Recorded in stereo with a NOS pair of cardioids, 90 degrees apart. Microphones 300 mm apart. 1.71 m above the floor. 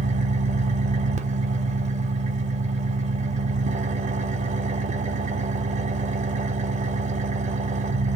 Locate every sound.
0.0 s an engine running: 25° right, 0.8 m